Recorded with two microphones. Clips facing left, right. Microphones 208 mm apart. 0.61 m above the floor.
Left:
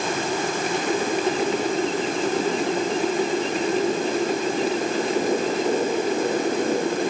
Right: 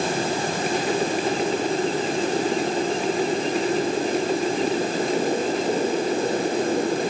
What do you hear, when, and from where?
Only background noise.